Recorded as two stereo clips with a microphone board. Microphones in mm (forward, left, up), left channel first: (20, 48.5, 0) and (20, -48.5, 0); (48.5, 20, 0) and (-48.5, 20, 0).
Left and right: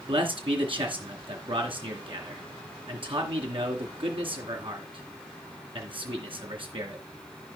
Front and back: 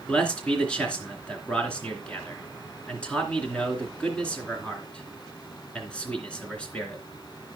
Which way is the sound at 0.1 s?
80° right.